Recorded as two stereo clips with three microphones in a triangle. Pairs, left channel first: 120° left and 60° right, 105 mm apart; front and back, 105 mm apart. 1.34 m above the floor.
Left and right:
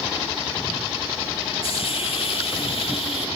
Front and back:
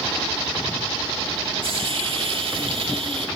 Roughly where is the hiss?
Behind left.